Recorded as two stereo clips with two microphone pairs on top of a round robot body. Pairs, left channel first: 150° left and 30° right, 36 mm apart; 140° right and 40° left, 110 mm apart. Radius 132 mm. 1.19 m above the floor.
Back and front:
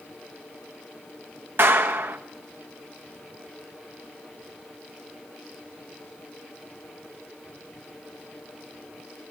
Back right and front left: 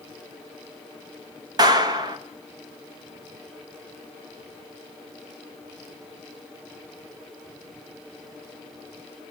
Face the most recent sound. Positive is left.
turn(degrees=-10)